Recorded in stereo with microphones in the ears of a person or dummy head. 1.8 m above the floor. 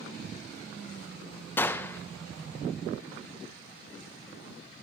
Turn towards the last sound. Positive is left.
turn(degrees=15)  # may be behind; listen again after turning